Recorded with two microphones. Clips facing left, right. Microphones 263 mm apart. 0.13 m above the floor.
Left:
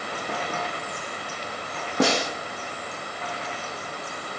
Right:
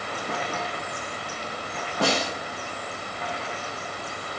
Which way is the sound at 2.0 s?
70° left (ahead or behind).